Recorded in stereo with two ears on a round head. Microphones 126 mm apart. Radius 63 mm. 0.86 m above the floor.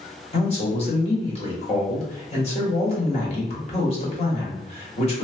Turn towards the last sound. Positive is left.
turn(degrees=45)  # may be behind; listen again after turning